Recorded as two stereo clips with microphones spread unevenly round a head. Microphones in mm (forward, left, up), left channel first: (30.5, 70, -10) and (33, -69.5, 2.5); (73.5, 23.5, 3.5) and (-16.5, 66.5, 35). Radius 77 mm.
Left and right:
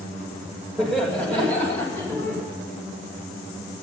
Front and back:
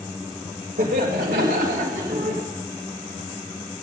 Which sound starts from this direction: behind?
Laughter, at 0.8 s.